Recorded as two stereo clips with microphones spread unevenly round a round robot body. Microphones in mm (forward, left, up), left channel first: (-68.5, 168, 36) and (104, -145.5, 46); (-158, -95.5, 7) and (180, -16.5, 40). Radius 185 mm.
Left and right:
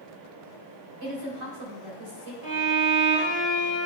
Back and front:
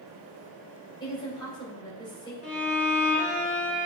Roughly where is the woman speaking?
Right.